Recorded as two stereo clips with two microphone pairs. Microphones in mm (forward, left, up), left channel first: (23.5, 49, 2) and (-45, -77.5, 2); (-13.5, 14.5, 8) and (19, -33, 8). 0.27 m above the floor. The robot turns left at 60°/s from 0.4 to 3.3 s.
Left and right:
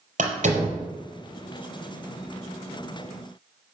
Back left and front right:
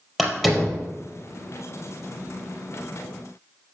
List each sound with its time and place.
0.2 s a door slam: 145° right, 4 m; by 0.8 s 170° right, 4 m